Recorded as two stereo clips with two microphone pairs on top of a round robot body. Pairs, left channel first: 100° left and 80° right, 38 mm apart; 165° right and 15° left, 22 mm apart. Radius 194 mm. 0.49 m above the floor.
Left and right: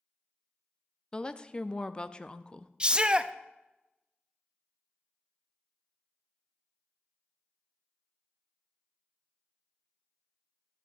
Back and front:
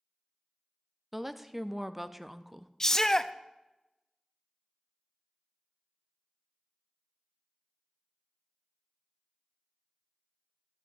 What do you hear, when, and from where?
1.1 s a woman speaking: 85° left, 0.7 m
2.8 s a shout: 135° right, 0.7 m